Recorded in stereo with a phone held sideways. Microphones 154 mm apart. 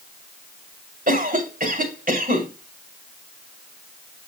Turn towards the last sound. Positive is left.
turn(degrees=-65)  # may be behind; listen again after turning